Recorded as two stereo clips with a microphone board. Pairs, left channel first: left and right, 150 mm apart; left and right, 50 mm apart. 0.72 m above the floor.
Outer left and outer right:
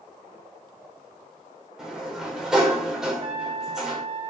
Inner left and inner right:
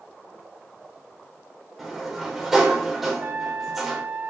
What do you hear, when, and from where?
1.8 s a sliding door: 5° right (ahead or behind), 3 m
3.1 s a trumpet: 40° right (ahead or behind), 2.0 m